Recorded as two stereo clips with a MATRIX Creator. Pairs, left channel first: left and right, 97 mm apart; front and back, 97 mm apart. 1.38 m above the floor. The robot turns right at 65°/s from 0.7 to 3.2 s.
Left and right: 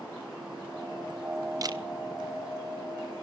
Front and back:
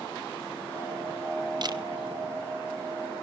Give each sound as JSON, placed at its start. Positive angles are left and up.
{"t": 1.6, "sound": "a camera shutter", "azimuth_deg": -140, "distance_m": 0.9}